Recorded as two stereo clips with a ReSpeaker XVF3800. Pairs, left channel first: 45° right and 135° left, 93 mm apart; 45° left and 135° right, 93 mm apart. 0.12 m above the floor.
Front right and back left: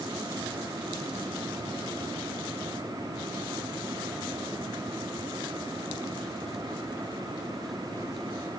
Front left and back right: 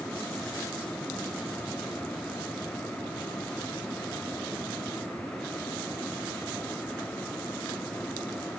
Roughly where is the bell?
I don't hear a bell.